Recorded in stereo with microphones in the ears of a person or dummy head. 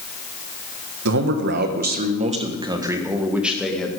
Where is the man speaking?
70° right (ahead or behind), 1.6 m; by 3.9 s 5° left (ahead or behind), 2 m.